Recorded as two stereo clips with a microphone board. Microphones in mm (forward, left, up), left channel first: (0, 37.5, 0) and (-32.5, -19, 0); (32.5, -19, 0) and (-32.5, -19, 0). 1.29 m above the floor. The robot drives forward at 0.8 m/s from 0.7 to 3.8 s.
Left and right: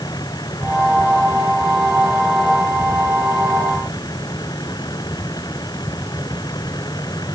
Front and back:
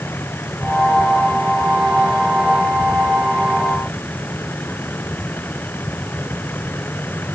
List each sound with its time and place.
0.0 s a vehicle: 55° left; by 7.3 s 60° left